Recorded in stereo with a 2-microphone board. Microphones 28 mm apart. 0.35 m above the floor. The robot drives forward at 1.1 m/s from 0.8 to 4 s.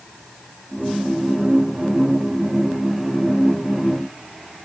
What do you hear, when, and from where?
Only background noise.